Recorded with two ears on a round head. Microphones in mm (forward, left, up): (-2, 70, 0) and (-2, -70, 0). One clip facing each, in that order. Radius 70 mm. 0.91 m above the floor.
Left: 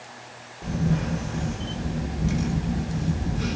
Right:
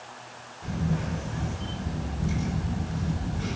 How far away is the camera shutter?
About 1.2 m.